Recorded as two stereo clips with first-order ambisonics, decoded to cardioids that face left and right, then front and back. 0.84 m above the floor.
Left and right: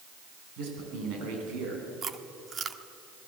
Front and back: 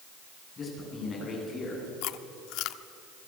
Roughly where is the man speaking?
Right.